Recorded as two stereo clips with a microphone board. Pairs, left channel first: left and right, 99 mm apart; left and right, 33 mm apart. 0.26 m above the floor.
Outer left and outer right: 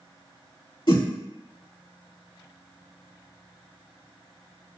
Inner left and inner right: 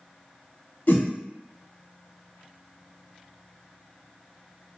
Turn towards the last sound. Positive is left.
turn(degrees=55)  # may be behind; listen again after turning